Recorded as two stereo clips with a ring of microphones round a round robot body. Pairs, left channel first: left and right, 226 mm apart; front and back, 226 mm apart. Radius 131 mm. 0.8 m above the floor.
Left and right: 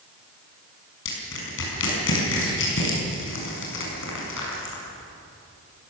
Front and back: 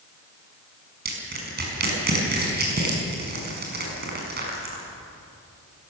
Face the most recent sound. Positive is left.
turn(degrees=135)